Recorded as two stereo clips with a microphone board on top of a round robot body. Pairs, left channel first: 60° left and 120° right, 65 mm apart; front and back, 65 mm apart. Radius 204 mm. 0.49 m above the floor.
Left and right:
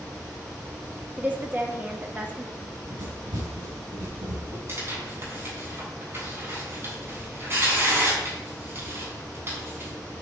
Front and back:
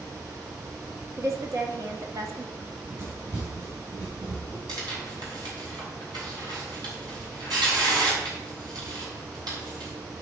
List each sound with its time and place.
1.2 s a woman speaking: straight behind, 1.8 m
2.6 s running footsteps: 130° right, 6 m
4.7 s tearing paper: 175° right, 5.5 m